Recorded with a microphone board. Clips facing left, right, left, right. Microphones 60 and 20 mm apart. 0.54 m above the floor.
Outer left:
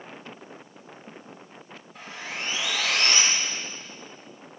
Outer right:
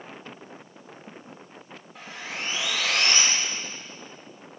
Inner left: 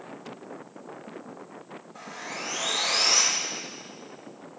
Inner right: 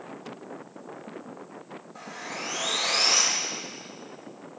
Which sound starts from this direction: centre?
Sawing, at 1.9 s.